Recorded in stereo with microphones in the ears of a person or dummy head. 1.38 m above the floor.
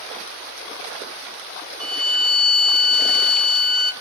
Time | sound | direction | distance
1.8 | a violin | 10° left (ahead or behind) | 0.7 m